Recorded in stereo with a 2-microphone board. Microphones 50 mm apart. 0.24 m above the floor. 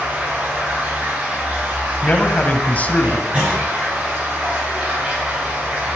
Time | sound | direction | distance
0.0 | running water | 25° right (ahead or behind) | 7 m
2.0 | a man speaking | 30° left (ahead or behind) | 1.3 m
3.3 | a clunk | 25° right (ahead or behind) | 5.5 m